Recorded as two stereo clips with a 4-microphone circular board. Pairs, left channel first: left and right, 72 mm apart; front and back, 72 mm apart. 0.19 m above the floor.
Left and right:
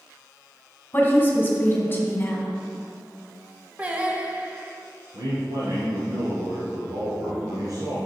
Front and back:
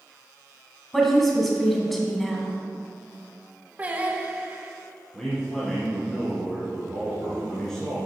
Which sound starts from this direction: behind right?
Singing, at 3.8 s.